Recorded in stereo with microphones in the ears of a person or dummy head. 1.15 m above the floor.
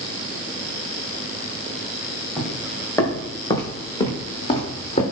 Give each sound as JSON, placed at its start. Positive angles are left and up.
{"t": 2.4, "sound": "footsteps", "side_deg": 5, "distance_m": 3.5}